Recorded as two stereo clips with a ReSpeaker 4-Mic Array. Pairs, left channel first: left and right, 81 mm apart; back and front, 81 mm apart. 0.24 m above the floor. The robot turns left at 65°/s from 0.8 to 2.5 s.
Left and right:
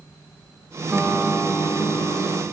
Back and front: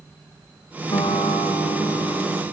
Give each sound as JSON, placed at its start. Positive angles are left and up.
{"t": 0.9, "sound": "a guitar", "azimuth_deg": -155, "distance_m": 5.5}